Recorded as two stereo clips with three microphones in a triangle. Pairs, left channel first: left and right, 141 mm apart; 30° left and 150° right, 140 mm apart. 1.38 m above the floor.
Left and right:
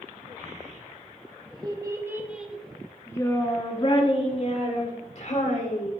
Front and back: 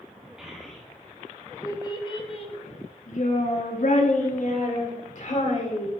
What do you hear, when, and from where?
0.4 s a child speaking: 65° right, 1.8 m; by 5.9 s 60° left, 3 m